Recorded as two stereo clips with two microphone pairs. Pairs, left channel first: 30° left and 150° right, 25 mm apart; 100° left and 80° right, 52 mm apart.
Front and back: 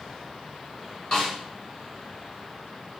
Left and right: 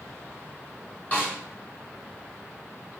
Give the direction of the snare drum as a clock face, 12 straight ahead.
9 o'clock.